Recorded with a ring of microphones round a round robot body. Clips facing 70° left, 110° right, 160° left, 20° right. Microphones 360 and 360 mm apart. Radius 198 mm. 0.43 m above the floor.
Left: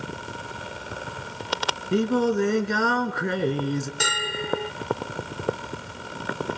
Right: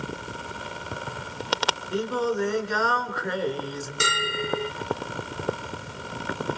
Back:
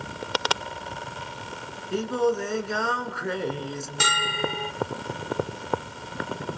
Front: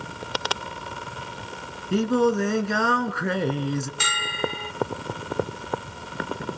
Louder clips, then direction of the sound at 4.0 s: Right 1 dB, even; 170° left.